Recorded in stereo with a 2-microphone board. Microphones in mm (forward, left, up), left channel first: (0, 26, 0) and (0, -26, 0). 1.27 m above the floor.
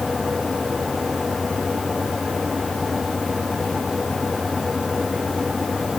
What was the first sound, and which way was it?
Only background noise.